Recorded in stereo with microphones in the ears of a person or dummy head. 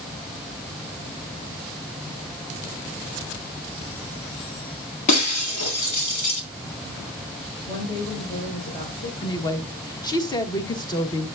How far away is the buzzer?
I don't hear a buzzer.